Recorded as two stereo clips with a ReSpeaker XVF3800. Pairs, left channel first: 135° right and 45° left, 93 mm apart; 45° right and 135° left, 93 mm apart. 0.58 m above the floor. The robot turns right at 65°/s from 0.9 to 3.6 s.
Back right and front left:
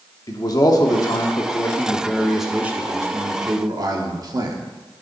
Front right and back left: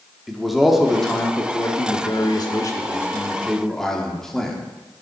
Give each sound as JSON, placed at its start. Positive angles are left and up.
{"t": 0.3, "sound": "a man speaking", "azimuth_deg": -140, "distance_m": 1.1}